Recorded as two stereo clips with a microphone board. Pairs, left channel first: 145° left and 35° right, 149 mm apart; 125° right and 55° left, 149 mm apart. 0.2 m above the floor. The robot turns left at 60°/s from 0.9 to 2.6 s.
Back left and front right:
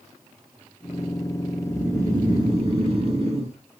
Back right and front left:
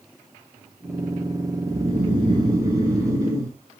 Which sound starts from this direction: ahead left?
Snoring, at 1.7 s.